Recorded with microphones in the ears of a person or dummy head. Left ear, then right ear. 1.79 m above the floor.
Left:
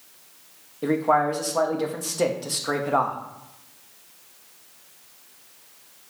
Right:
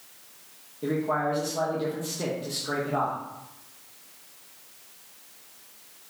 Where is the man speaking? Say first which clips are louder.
Left 6 dB; 40° left (ahead or behind), 0.6 m.